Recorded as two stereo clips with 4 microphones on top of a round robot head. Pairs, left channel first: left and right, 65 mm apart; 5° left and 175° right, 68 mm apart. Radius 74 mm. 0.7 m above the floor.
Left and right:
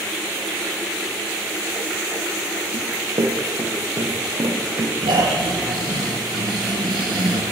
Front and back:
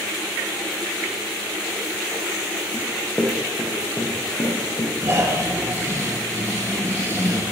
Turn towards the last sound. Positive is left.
turn(degrees=-115)